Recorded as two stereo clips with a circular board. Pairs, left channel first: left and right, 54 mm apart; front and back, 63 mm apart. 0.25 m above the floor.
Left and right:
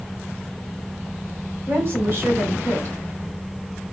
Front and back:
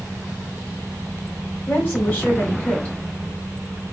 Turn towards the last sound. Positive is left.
turn(degrees=-55)